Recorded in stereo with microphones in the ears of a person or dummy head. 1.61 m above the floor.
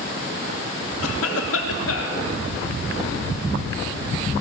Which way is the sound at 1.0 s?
85° left.